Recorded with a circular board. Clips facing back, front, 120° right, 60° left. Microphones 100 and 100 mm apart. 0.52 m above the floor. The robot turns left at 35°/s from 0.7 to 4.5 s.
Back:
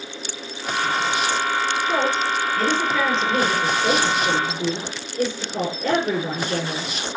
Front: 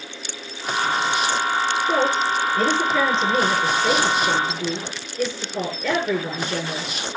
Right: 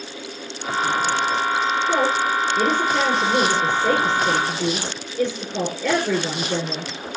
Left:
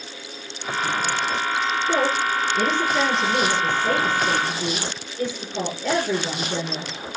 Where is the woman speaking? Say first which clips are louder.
Front 2 dB, even; 40° right, 8 m; by 7.2 s 135° right, 8 m.